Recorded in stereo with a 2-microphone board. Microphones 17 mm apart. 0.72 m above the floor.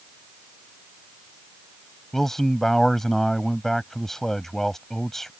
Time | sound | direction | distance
2.1 | a man speaking | 15° left (ahead or behind) | ?